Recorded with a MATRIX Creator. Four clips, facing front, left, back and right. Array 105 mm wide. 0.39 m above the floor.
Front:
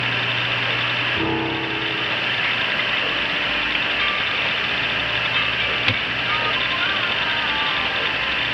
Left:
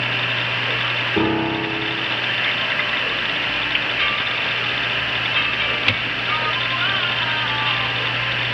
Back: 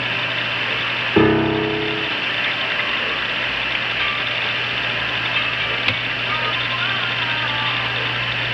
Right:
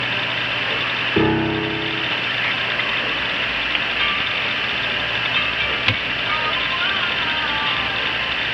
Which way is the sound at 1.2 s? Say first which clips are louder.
Right 2 dB, back 10 dB; 170° right.